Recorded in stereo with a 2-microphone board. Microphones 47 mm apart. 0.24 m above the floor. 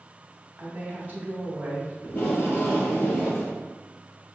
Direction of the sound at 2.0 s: 45° left (ahead or behind).